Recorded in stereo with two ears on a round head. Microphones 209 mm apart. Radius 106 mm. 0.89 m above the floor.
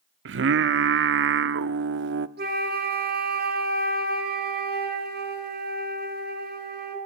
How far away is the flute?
About 3.5 m.